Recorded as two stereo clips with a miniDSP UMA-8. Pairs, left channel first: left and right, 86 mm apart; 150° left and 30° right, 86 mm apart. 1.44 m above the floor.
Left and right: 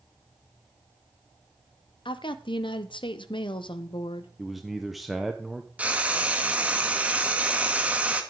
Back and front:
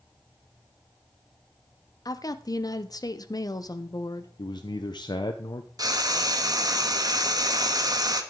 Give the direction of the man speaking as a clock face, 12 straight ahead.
6 o'clock.